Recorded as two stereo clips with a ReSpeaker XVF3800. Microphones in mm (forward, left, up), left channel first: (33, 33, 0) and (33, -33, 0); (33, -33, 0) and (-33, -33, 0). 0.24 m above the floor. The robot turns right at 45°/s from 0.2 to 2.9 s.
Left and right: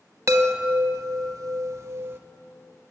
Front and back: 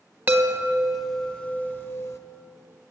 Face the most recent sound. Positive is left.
turn(degrees=-5)